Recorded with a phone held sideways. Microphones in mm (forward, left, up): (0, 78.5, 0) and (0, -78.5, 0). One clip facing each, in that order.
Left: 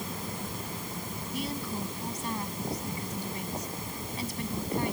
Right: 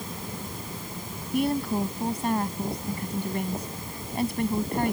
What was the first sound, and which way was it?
A woman speaking, 60° right (ahead or behind).